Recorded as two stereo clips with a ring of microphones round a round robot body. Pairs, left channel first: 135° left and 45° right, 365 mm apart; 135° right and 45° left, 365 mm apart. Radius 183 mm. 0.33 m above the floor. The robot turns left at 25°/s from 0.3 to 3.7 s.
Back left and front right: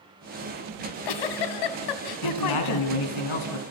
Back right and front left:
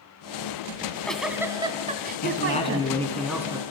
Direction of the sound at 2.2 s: 160° left.